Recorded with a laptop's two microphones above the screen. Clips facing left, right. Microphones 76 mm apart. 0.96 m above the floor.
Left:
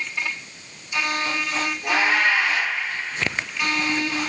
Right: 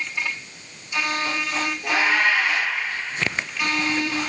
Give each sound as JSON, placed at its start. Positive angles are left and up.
{"t": 1.8, "sound": "a cat meowing", "side_deg": 10, "distance_m": 5.0}